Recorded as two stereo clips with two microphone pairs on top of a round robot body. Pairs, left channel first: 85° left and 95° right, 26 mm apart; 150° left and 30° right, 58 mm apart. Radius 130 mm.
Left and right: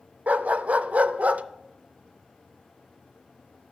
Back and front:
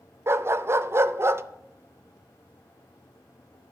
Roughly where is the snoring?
I don't hear snoring.